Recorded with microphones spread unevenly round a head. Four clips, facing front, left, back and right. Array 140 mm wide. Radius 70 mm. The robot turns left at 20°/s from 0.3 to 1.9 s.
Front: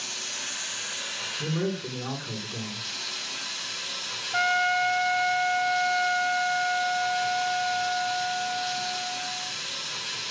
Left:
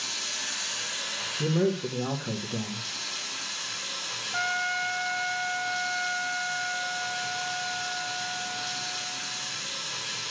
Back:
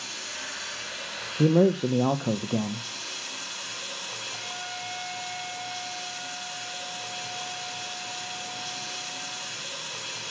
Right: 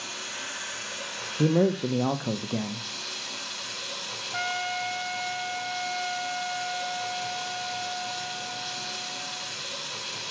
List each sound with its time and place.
0.0 s running water: 95° right, 5.5 m; by 10.3 s 130° right, 5.5 m
1.4 s a man speaking: 150° right, 0.9 m; by 2.9 s 160° right, 0.9 m
4.3 s a trumpet: 5° right, 1.1 m